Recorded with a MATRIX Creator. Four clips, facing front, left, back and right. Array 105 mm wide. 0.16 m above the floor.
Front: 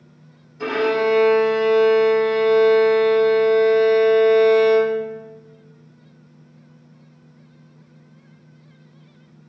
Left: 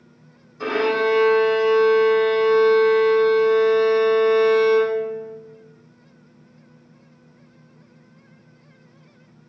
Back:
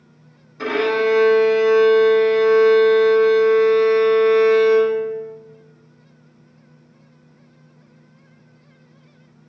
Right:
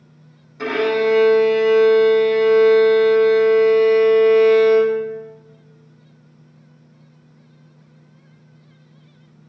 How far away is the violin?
About 1.0 m.